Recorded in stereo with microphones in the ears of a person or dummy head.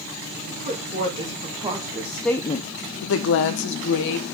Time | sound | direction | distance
0.5 | a woman speaking | 30° right (ahead or behind) | 2.5 m